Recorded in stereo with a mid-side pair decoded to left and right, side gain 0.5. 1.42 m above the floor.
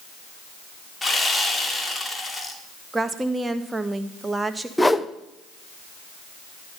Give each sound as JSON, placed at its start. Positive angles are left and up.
{"t": 1.0, "sound": "sawing", "azimuth_deg": 15, "distance_m": 2.5}
{"t": 2.9, "sound": "a woman speaking", "azimuth_deg": -15, "distance_m": 1.4}
{"t": 4.8, "sound": "a whoosh", "azimuth_deg": 10, "distance_m": 0.9}